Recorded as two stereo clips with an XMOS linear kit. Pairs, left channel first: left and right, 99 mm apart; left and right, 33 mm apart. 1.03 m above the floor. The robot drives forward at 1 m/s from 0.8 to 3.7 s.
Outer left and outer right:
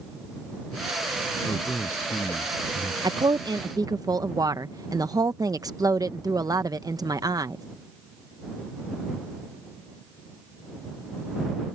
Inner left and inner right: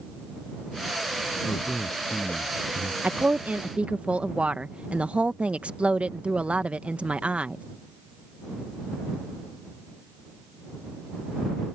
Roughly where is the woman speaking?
Right.